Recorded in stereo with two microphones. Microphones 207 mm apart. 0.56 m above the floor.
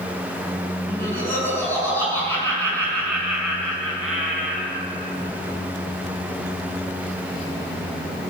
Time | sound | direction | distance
0.9 | laughter | 10° left (ahead or behind) | 5.5 m